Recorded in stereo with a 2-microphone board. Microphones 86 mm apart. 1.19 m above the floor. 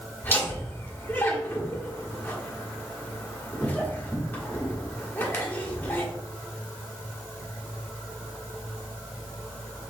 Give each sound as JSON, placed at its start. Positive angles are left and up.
{"t": 0.2, "sound": "laughter", "side_deg": 25, "distance_m": 1.7}